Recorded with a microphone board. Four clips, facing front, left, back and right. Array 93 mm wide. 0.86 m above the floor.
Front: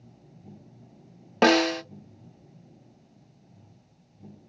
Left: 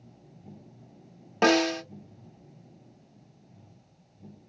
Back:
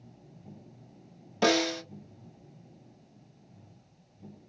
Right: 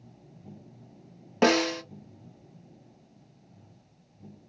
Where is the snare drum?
5° right, 1.0 m.